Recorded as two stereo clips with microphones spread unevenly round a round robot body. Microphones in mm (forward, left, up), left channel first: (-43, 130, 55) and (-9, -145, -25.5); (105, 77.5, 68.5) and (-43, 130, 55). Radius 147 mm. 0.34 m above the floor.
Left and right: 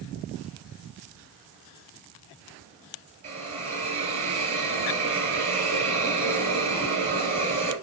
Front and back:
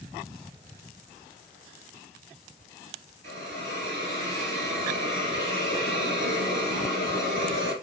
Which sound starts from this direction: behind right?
A hiss, at 3.2 s.